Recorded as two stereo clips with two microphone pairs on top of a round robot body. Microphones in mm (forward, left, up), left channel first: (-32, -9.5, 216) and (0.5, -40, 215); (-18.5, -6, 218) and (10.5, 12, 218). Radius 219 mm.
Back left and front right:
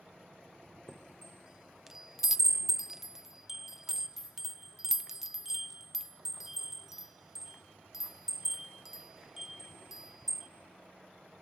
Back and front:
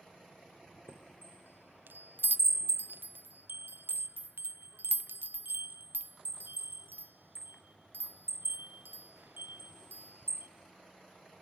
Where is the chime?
40° left, 0.9 m.